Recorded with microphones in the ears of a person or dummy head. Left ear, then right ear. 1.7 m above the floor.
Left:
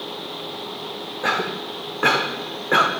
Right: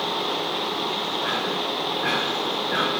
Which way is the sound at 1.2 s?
65° left (ahead or behind).